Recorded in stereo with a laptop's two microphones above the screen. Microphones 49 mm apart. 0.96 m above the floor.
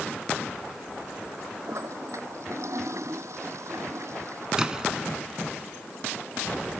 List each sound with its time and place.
1.7 s a toilet flushing: 70° right (ahead or behind)
4.6 s a splash: 15° right (ahead or behind)